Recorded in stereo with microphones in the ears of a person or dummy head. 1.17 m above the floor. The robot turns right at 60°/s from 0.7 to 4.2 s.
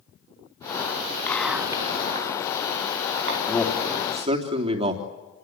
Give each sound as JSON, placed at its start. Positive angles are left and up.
{"t": 1.3, "sound": "whispering", "side_deg": 10, "distance_m": 1.2}
{"t": 3.5, "sound": "a man speaking", "azimuth_deg": 170, "distance_m": 3.0}